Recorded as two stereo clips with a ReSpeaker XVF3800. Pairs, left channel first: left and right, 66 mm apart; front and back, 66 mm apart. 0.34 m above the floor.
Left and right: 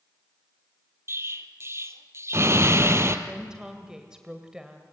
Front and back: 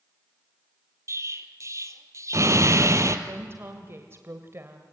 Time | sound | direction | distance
1.1 | an explosion | 135° right | 1.6 m
3.3 | a woman speaking | 165° right | 1.8 m